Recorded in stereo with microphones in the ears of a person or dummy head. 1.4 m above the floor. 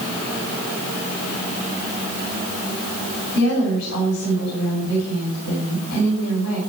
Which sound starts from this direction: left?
A woman speaking, at 3.3 s.